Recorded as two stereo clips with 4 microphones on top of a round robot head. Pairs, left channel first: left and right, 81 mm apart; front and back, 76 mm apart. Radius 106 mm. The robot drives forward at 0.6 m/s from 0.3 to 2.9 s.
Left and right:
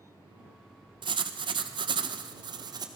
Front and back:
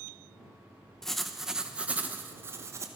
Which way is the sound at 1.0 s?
80° right.